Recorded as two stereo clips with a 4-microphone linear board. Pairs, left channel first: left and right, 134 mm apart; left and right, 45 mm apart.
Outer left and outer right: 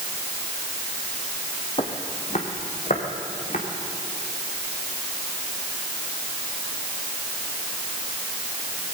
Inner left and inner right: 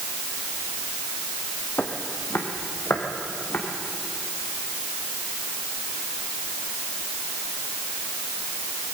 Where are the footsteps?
45° left (ahead or behind), 1.6 m; by 3.6 s 65° left (ahead or behind), 3 m.